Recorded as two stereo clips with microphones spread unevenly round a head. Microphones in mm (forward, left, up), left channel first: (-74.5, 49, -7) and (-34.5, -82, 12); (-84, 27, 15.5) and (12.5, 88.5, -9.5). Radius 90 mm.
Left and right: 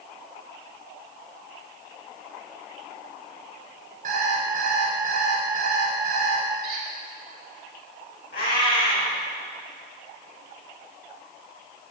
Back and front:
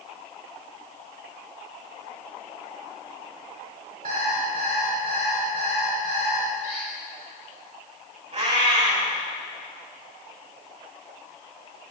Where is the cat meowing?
65° left, 4.5 m.